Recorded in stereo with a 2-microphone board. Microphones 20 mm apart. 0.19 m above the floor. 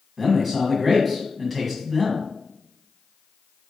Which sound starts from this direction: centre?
A man speaking, at 0.2 s.